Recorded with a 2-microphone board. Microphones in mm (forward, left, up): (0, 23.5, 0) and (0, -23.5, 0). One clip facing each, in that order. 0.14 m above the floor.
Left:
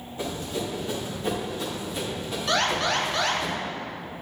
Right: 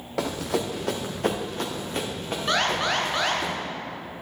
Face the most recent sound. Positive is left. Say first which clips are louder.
# even
turn(degrees=-20)  # may be behind; listen again after turning